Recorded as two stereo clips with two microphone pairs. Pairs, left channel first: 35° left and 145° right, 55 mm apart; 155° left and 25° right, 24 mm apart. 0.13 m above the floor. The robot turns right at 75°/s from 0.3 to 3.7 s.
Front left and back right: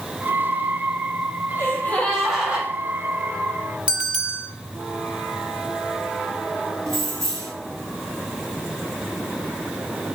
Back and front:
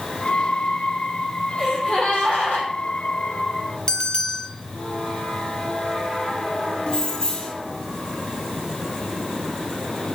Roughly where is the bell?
Behind.